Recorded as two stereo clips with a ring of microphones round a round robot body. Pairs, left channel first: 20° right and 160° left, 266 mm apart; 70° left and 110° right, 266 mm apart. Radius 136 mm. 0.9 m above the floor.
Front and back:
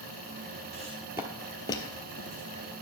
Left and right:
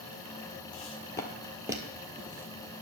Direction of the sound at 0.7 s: 110° left.